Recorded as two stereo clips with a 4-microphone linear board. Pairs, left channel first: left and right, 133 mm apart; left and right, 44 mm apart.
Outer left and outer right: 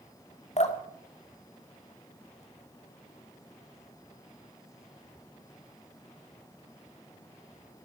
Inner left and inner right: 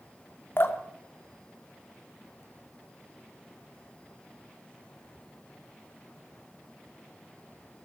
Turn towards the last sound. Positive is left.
turn(degrees=55)  # may be behind; listen again after turning